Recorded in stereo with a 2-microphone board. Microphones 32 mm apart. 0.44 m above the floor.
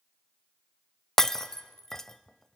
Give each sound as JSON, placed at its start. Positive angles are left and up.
{"t": 1.2, "sound": "breaking glass", "side_deg": 10, "distance_m": 0.6}